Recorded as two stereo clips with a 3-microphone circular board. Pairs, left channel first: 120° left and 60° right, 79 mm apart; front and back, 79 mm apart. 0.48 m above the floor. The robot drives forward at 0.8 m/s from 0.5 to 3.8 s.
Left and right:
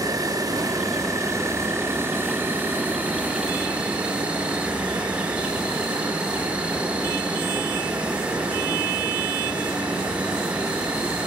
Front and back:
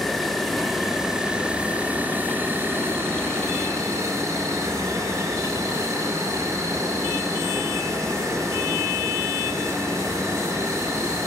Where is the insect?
85° right, 3 m; by 11.3 s 135° right, 4 m.